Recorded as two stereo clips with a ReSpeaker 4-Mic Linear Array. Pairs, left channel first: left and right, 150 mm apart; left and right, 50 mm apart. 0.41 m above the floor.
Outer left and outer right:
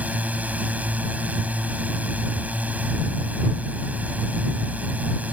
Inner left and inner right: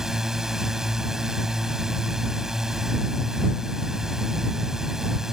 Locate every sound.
0.0 s a drone: 10° right (ahead or behind)